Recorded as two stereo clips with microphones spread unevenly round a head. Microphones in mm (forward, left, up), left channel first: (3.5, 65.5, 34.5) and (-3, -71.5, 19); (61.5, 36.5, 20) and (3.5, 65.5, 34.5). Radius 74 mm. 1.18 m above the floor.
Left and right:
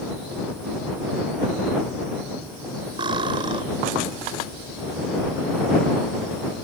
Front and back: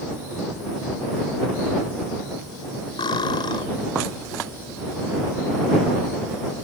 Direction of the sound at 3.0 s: 35° right.